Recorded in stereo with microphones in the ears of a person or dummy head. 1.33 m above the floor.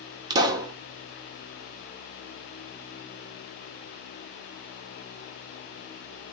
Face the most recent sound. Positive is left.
turn(degrees=-20)  # may be behind; listen again after turning